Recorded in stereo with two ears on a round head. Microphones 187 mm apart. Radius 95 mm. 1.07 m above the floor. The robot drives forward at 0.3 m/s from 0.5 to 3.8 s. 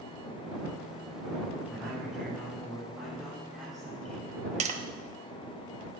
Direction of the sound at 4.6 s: 35° right (ahead or behind).